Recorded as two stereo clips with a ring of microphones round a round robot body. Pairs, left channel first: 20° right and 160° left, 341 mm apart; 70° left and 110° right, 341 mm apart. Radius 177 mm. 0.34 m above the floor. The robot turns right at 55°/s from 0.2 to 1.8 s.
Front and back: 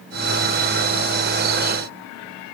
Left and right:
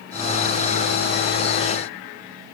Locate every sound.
Only background noise.